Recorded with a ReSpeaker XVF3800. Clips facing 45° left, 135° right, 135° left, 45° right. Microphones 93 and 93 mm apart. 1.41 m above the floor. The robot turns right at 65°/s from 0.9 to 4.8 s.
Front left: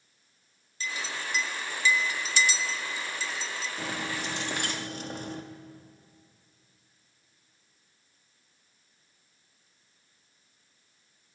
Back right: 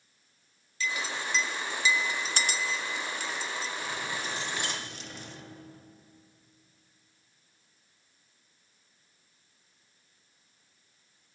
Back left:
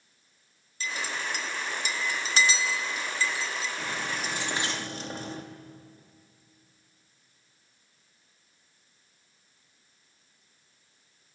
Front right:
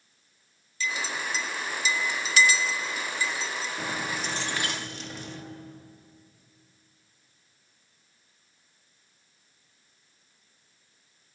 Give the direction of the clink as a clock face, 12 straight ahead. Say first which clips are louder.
Back right 2 dB, front right 2 dB; 9 o'clock.